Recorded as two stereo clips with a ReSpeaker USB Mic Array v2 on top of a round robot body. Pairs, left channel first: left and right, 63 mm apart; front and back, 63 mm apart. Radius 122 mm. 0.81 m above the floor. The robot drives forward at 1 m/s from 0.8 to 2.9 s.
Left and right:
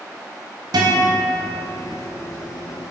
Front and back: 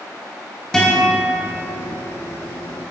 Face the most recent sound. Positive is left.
turn(degrees=-135)